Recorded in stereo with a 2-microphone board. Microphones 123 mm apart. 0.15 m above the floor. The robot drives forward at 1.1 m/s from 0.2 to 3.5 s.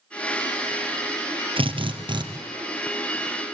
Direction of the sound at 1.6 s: 45° right (ahead or behind).